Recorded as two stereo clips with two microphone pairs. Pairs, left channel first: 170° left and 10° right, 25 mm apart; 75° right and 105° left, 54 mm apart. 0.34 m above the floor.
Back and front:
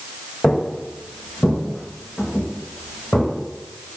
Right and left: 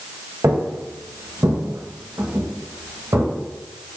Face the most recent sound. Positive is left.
turn(degrees=115)